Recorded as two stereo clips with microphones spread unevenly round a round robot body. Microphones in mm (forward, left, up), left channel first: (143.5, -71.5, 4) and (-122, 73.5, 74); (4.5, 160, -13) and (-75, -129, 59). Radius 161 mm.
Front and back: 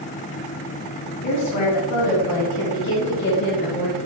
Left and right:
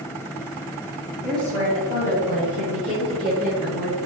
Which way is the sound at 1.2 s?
10° right.